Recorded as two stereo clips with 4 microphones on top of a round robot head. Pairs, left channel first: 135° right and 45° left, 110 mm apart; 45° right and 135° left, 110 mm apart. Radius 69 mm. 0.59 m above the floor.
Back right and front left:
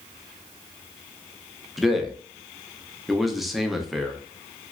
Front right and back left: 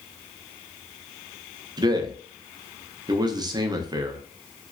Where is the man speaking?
135° left, 0.6 m.